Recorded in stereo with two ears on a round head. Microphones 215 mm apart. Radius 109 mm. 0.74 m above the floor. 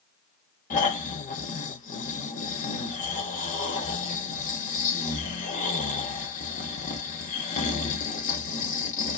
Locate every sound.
0.7 s snoring: 35° left (ahead or behind), 0.8 m